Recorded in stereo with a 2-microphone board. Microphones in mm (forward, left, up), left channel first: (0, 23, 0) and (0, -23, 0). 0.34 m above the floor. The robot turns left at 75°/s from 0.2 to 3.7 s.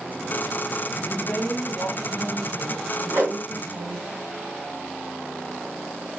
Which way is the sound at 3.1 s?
50° right (ahead or behind).